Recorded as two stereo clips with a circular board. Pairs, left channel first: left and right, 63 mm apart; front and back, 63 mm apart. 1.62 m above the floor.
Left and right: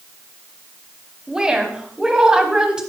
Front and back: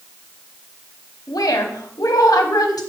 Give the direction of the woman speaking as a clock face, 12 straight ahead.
12 o'clock.